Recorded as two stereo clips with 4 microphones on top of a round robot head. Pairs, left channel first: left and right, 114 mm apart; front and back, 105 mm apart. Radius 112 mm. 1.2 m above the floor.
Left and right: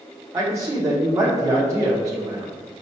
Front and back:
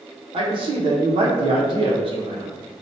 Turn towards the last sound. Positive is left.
turn(degrees=-150)